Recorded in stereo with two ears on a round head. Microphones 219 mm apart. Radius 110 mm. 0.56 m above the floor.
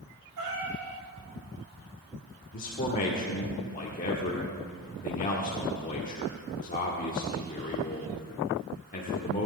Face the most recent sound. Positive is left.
turn(degrees=35)  # may be behind; listen again after turning